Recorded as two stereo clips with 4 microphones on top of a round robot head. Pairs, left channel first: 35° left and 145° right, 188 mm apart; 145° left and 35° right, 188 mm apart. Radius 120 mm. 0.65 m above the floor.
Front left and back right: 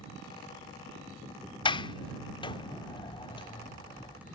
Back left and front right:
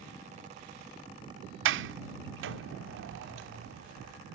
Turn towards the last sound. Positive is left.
turn(degrees=-30)